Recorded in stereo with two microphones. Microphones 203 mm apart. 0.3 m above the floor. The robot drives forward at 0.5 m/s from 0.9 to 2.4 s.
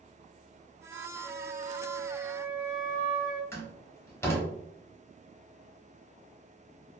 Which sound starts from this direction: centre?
A door slam, at 3.5 s.